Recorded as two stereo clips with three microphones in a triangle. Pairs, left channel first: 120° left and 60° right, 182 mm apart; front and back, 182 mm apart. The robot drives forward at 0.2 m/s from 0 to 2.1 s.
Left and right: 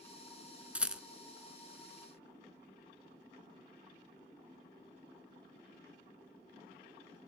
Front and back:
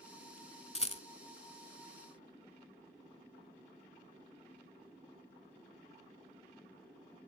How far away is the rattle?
About 0.5 m.